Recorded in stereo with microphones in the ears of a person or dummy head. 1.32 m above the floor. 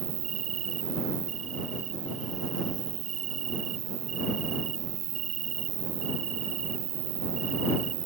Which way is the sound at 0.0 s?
40° right (ahead or behind).